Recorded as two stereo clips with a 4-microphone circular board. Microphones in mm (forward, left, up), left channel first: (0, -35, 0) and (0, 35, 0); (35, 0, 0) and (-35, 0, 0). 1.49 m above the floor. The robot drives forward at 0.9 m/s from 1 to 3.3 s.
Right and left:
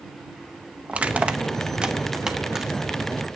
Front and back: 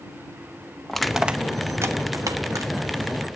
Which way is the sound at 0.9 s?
75° left.